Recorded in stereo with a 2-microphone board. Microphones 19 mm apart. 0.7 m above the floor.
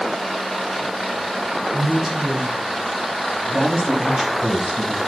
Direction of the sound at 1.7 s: 45° right (ahead or behind).